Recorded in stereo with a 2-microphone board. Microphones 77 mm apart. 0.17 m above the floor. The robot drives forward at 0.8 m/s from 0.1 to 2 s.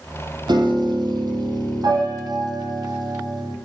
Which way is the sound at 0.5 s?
70° right (ahead or behind).